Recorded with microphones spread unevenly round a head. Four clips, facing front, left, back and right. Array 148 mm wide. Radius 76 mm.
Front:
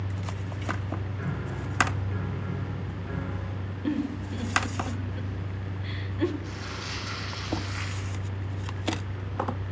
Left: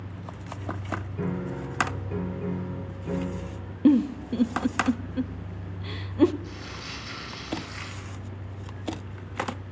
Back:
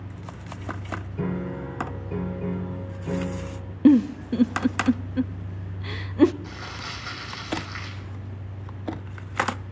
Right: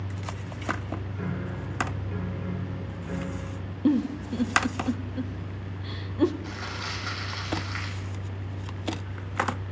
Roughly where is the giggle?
Behind left.